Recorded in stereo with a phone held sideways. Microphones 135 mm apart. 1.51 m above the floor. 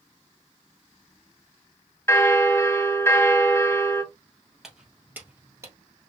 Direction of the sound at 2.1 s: 20° left (ahead or behind).